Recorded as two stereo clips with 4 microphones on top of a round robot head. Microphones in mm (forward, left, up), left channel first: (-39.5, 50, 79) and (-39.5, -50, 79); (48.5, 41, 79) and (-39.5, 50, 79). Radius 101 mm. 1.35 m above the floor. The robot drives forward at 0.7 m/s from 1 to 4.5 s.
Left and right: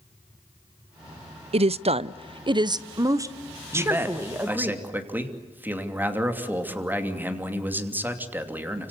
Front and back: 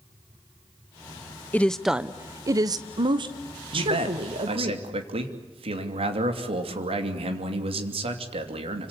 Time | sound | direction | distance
1.5 | a woman speaking | 80° right | 0.7 m
3.7 | a man speaking | 160° right | 2.5 m